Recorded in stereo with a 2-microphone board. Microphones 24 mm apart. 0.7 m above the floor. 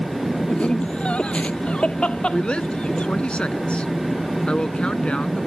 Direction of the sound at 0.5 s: 60° left (ahead or behind).